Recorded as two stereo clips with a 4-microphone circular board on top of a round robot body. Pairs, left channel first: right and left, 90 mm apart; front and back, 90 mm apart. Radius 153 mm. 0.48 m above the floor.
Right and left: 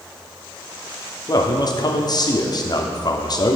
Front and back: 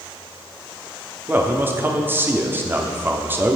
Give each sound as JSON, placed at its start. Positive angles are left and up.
{"t": 1.3, "sound": "a man speaking", "azimuth_deg": -120, "distance_m": 1.4}